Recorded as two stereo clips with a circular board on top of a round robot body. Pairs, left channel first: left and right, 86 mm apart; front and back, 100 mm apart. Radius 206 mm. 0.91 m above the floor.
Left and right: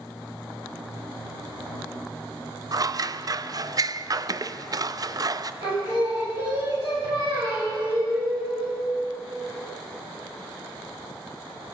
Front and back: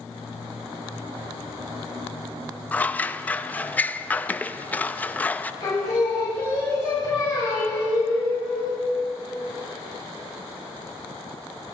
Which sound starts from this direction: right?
Scissors, at 2.7 s.